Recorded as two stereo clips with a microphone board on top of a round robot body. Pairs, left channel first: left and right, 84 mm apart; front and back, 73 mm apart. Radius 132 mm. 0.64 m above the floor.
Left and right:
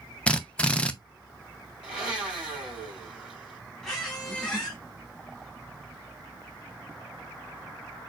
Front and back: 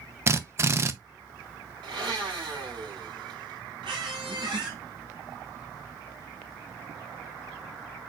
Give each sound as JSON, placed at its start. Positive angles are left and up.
{"t": 0.3, "sound": "a drill", "azimuth_deg": 160, "distance_m": 0.8}
{"t": 1.8, "sound": "a blender", "azimuth_deg": -170, "distance_m": 3.5}
{"t": 3.8, "sound": "a squeak", "azimuth_deg": 175, "distance_m": 1.9}